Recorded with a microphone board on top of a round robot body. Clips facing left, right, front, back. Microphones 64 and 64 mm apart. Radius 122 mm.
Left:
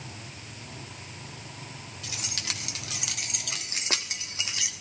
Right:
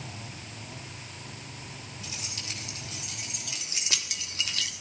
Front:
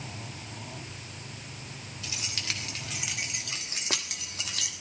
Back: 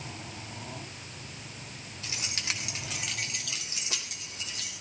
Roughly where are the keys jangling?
Behind left.